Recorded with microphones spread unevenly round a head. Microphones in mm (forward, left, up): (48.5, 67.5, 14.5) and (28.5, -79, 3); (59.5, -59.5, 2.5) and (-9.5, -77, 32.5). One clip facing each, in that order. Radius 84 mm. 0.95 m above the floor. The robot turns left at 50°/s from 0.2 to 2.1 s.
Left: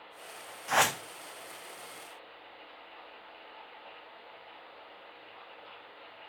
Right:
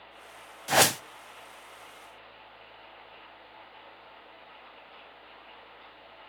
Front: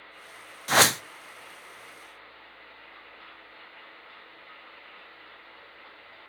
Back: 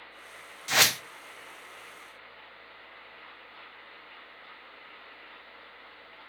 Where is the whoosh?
40° right, 0.5 m; by 1.0 s 60° right, 0.5 m.